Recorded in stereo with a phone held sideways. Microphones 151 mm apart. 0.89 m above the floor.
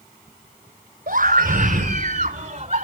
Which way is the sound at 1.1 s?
60° right (ahead or behind).